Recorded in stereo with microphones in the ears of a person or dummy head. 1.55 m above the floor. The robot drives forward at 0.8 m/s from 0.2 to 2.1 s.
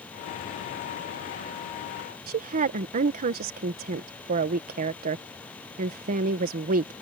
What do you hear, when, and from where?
2.3 s a woman speaking: 35° right (ahead or behind)